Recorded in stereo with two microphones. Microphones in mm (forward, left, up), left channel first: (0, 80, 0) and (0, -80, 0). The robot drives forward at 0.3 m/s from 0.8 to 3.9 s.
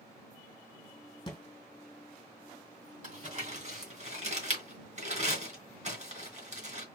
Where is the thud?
30° left (ahead or behind), 2.0 m.